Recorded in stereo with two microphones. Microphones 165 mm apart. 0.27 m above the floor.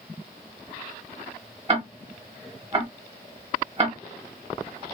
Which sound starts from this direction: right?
Ticking, at 1.7 s.